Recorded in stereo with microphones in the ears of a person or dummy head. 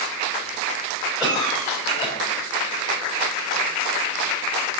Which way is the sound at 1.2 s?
20° right (ahead or behind).